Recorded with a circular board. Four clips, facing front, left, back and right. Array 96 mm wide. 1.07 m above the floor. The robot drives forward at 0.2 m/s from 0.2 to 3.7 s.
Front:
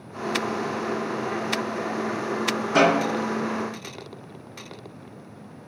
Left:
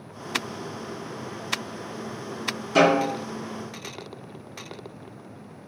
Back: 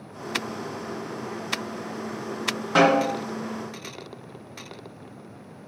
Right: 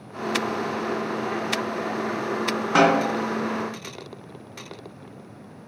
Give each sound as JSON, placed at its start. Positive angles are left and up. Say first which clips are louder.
{"t": 2.8, "sound": "a snare drum", "louder": "even, back 1 dB", "azimuth_deg": -110, "distance_m": 2.0}